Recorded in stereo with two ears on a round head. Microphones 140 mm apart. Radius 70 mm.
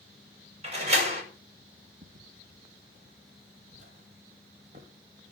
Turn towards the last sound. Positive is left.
turn(degrees=-40)  # may be behind; listen again after turning